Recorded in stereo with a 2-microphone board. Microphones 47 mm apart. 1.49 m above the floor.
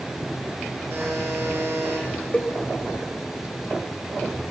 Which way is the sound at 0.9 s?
55° right (ahead or behind).